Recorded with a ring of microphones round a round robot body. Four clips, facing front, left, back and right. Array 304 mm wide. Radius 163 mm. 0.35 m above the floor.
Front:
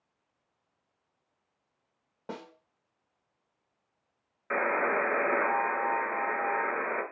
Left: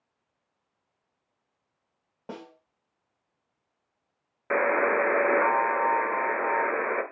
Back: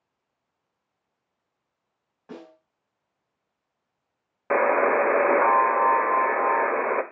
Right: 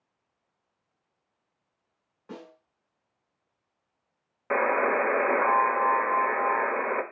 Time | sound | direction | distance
2.3 | a snare drum | 55° left | 2.5 m
4.5 | a buzzer | 170° left | 1.1 m